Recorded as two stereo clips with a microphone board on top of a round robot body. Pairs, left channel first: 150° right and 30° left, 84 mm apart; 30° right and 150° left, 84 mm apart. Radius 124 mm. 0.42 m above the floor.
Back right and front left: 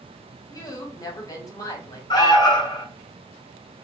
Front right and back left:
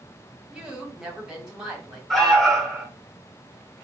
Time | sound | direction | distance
0.5 | a woman speaking | 130° right | 1.7 m
2.1 | an alarm | 120° right | 1.2 m